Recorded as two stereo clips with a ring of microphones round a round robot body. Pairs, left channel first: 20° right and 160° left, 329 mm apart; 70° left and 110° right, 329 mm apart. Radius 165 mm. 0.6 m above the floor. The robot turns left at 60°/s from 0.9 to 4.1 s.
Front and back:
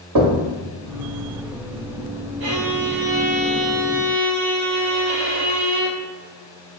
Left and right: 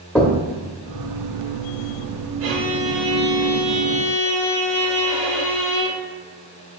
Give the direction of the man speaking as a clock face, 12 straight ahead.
No man speaking in this recording.